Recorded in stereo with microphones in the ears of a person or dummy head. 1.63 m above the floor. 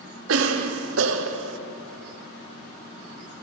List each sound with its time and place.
0.3 s a cough: 80° right, 0.9 m